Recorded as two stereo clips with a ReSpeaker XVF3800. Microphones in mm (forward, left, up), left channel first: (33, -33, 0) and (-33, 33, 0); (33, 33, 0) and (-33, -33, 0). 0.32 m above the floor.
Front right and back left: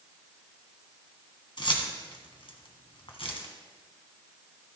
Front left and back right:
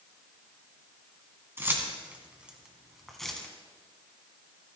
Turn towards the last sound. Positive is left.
turn(degrees=-35)